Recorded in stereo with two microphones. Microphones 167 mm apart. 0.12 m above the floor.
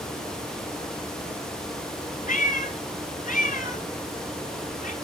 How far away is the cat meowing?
About 1.3 m.